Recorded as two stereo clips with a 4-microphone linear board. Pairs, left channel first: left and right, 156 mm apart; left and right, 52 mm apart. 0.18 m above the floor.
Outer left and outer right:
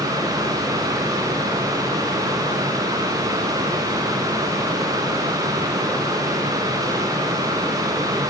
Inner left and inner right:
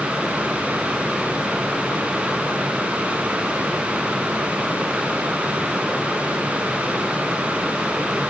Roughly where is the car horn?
No car horn in this recording.